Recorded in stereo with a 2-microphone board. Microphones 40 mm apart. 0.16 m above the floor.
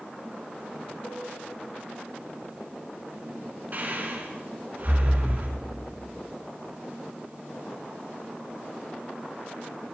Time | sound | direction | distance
1.0 | a cowbell | 10° left (ahead or behind) | 0.8 m
3.7 | breathing | 45° right (ahead or behind) | 1.8 m